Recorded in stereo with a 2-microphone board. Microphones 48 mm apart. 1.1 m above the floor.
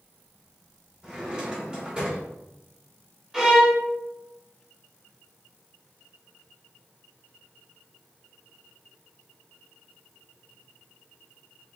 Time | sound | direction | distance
1.0 | a drawer | 20° right (ahead or behind) | 1.5 m
3.3 | a violin | 10° right (ahead or behind) | 1.4 m